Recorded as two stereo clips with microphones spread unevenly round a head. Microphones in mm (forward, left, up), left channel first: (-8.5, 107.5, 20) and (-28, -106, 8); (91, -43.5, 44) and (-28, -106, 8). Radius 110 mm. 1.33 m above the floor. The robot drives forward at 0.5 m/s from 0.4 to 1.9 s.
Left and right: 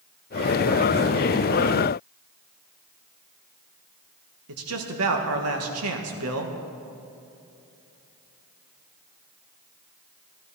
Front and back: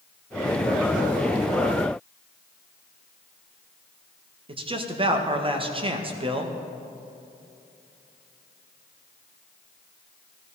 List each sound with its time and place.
4.5 s a man speaking: 105° right, 1.7 m